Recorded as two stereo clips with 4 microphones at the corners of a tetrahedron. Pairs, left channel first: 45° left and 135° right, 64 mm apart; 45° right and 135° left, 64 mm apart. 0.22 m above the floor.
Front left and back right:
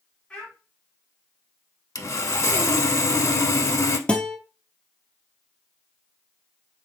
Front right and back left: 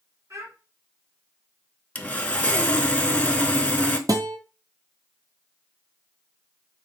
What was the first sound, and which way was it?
A child speaking, 115° left.